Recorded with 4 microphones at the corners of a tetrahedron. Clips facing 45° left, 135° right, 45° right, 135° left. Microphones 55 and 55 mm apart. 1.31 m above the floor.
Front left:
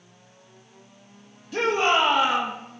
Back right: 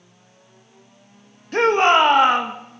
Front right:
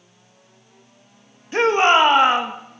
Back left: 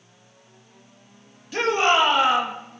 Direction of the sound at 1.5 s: 100° right.